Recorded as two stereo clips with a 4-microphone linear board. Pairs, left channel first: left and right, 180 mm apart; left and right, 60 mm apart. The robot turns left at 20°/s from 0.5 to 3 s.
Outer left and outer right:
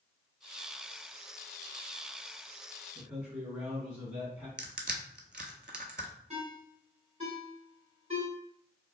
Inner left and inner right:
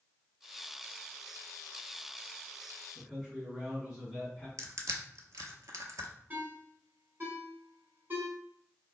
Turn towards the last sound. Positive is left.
turn(degrees=-35)  # may be behind; listen again after turning